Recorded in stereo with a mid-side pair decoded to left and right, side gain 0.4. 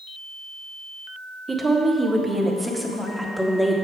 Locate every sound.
1.5 s a woman speaking: 30° right, 1.4 m; by 3.8 s 5° left, 2.0 m